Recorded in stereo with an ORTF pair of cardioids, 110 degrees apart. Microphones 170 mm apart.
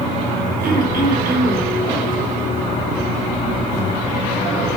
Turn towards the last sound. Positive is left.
turn(degrees=-55)